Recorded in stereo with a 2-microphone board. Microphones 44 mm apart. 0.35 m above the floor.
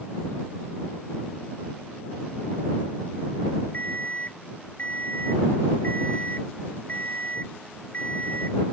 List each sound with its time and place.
3.7 s an alarm clock: 40° left (ahead or behind)